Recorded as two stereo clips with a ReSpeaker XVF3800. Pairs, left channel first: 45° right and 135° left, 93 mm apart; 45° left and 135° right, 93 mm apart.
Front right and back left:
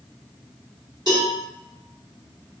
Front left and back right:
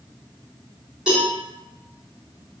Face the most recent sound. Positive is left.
turn(degrees=145)